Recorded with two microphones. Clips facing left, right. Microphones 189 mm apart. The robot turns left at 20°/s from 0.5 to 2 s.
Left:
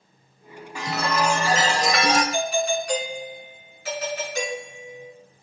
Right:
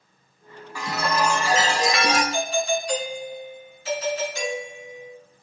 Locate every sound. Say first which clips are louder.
0.8 s a chime: even; 20° left (ahead or behind), 3 m; by 2.2 s 45° left (ahead or behind), 3 m
2.3 s a doorbell: left 1 dB; 75° left (ahead or behind), 5 m